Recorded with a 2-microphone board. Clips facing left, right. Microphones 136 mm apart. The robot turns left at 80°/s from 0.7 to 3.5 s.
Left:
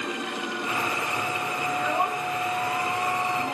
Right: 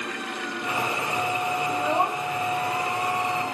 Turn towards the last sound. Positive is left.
turn(degrees=25)  # may be behind; listen again after turning